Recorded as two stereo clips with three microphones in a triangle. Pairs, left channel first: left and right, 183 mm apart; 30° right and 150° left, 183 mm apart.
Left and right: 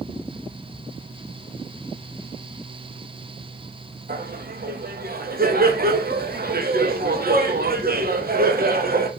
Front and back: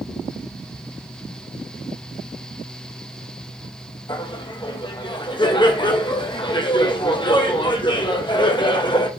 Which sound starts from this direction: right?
Laughter, at 4.1 s.